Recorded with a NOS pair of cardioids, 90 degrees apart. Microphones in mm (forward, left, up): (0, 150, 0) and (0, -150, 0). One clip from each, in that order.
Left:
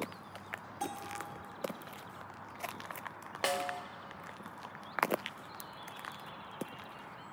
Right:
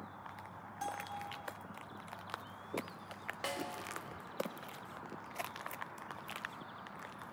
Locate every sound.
0.8 s a bell: 15° left, 1.4 m
3.4 s a snare drum: 35° left, 0.6 m